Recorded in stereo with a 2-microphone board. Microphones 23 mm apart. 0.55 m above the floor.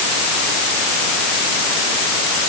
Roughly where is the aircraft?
I don't hear an aircraft.